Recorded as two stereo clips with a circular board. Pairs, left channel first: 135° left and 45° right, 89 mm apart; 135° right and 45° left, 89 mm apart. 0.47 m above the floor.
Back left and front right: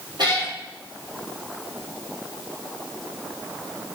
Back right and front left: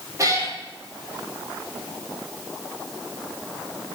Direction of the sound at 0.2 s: 10° right.